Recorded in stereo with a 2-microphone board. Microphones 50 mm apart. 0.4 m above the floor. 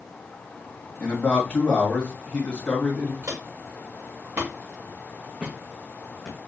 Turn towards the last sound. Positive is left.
turn(degrees=10)  # may be behind; listen again after turning